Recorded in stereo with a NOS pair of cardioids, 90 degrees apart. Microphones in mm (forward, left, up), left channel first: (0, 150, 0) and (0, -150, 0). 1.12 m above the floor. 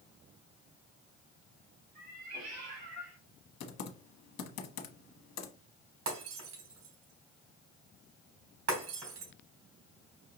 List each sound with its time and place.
1.9 s a cat meowing: 70° right, 3 m; by 3.2 s 55° right, 4 m
3.6 s typing on a keyboard: 60° left, 1.1 m
6.1 s breaking glass: 55° right, 3.5 m